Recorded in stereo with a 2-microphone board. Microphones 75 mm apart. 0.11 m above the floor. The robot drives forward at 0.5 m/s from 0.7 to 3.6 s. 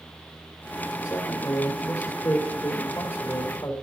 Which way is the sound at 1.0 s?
45° left (ahead or behind).